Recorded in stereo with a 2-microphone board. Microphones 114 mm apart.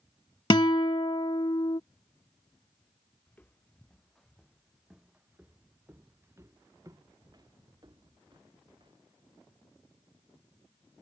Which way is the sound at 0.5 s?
45° left (ahead or behind).